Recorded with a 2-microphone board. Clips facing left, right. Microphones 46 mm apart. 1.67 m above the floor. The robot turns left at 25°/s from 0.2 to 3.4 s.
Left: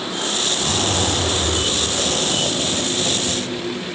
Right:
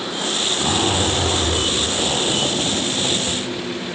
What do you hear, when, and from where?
0.6 s a zipper: 70° right, 6.5 m; by 3.4 s 140° right, 6.5 m